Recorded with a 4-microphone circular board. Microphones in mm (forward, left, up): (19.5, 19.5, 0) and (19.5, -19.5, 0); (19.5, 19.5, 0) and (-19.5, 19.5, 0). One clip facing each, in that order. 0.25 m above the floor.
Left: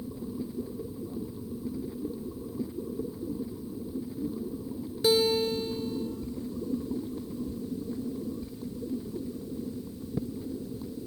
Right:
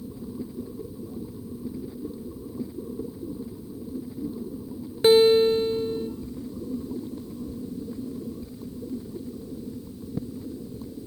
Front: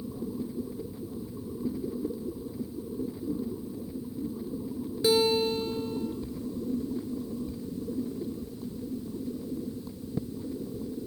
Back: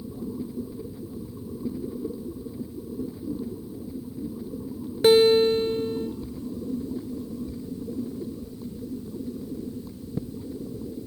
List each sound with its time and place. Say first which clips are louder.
5.0 s a guitar: right 9 dB, back 8 dB; 135° right, 0.9 m